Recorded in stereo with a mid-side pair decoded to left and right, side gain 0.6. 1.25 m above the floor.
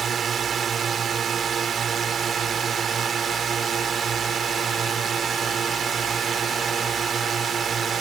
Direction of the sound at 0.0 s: 35° right.